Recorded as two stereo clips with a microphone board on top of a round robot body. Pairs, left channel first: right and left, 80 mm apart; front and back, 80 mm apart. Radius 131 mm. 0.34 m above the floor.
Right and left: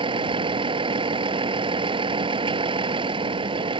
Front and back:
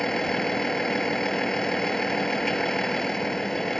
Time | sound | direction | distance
0.0 | a vehicle | 85° left | ?